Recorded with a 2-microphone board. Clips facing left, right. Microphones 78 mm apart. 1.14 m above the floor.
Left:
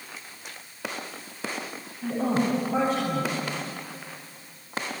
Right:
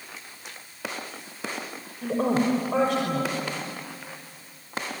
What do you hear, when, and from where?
2.0 s a woman speaking: 70° right (ahead or behind), 5.5 m